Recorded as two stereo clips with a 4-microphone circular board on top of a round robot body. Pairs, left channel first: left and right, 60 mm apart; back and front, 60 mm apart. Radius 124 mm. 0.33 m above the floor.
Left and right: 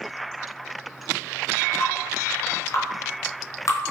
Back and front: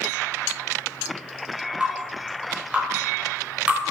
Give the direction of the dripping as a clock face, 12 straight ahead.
10 o'clock.